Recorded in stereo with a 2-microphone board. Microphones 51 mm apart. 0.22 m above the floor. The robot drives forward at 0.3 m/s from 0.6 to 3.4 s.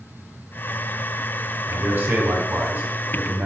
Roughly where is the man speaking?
Right.